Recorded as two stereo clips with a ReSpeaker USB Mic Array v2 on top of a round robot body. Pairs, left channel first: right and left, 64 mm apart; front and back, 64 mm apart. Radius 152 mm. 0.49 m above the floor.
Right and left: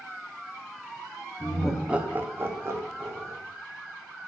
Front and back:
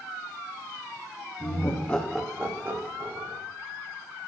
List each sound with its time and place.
1.4 s laughter: 15° right, 1.1 m; by 3.4 s 130° left, 1.9 m